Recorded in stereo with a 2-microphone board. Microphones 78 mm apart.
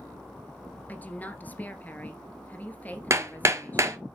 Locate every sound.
0.9 s a woman speaking: 20° left (ahead or behind), 1.6 m
3.1 s hammering: 40° right (ahead or behind), 1.0 m